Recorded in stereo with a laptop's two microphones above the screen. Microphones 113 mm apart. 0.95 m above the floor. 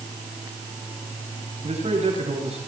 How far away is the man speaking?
About 9 m.